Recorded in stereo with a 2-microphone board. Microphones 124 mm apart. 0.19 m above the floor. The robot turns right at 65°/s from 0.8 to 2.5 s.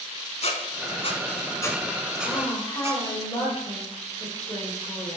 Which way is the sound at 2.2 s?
40° left (ahead or behind).